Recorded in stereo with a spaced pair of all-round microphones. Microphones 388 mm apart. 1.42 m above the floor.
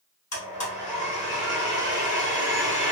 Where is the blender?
45° left (ahead or behind), 1.2 m.